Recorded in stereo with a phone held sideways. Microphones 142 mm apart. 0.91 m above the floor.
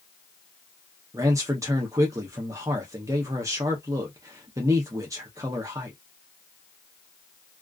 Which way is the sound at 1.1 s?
20° right (ahead or behind).